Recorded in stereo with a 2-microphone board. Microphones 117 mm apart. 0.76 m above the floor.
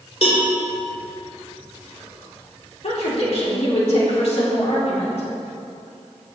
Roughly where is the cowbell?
Left.